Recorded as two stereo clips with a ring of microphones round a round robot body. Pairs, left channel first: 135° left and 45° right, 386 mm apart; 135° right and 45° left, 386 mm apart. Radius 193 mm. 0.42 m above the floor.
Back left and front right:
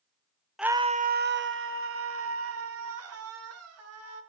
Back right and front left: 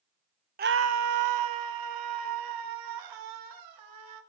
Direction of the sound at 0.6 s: 45° left.